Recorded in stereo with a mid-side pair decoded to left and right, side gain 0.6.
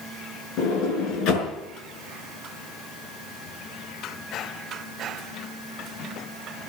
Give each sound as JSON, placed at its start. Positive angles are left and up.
{"t": 0.6, "sound": "a sliding door", "azimuth_deg": 65, "distance_m": 6.0}